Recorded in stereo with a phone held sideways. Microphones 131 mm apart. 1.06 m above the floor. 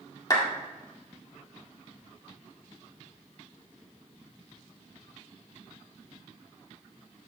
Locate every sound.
0.3 s a clap: 30° left (ahead or behind), 2 m